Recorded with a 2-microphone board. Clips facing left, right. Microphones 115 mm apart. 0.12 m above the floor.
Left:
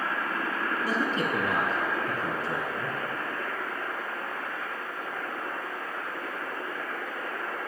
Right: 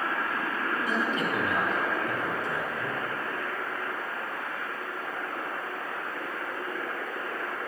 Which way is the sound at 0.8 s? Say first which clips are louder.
Left 2 dB; 35° left (ahead or behind).